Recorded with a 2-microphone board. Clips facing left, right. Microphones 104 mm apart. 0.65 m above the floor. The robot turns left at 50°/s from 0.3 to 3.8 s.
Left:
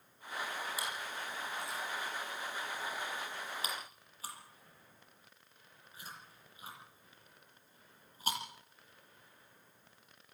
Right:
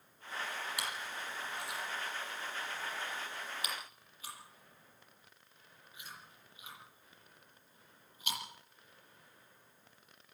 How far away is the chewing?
About 7.5 m.